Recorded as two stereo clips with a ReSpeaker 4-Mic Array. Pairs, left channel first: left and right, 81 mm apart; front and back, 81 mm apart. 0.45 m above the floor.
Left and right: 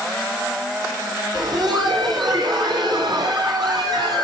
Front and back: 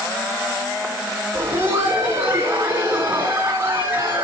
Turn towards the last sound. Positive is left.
turn(degrees=-120)